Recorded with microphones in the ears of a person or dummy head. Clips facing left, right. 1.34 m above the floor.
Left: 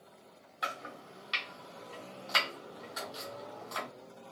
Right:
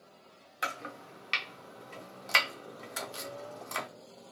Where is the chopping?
40° right (ahead or behind), 0.6 m.